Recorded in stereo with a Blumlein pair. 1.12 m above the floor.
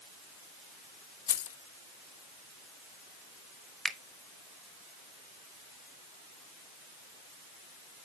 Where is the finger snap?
5° right, 1.0 m.